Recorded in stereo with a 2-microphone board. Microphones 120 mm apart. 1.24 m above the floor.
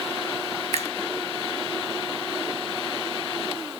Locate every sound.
0.7 s a finger snap: 70° right (ahead or behind), 1.0 m